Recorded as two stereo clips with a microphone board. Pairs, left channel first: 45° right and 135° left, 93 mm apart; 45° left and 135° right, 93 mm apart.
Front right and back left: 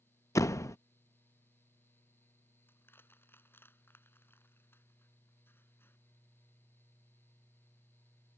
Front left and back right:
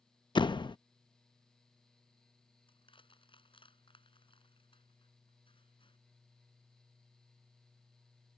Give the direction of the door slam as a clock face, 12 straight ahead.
12 o'clock.